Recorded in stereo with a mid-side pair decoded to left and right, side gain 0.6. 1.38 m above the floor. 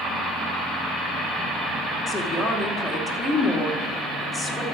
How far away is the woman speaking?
About 3 m.